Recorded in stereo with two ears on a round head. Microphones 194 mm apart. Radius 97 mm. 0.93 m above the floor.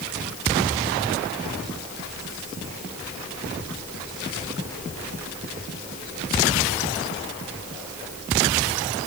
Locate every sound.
Only background noise.